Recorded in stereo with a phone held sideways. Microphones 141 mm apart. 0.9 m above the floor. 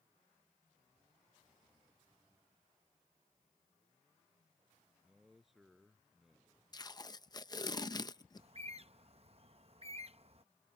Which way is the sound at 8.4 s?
45° right (ahead or behind).